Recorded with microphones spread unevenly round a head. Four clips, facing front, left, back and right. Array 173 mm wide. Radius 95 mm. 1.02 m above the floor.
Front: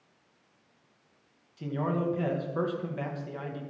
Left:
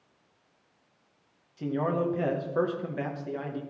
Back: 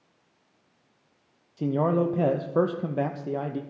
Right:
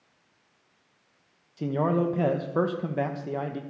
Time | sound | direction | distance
1.6 | a man speaking | 155° right | 1.1 m